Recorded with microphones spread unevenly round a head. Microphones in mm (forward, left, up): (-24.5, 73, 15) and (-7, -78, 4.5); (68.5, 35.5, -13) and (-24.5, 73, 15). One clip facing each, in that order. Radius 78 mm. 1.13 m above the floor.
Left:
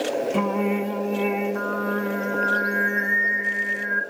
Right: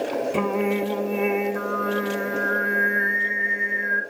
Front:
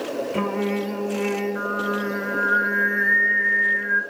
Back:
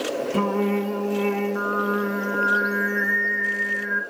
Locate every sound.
0.3 s singing: 170° right, 0.9 m